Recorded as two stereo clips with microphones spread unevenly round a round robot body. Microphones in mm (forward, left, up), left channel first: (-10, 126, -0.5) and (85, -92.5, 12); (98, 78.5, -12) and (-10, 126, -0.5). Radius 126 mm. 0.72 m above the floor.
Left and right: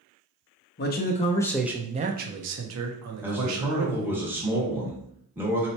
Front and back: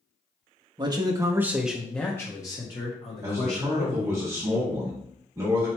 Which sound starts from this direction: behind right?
A man speaking, at 3.2 s.